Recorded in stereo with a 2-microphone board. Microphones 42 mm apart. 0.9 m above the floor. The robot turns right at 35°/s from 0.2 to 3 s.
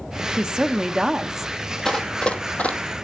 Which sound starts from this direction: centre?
Running footsteps, at 1.9 s.